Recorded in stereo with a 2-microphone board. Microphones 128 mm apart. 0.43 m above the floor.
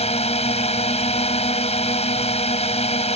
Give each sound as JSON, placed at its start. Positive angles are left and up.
{"t": 0.0, "sound": "a drone", "side_deg": 55}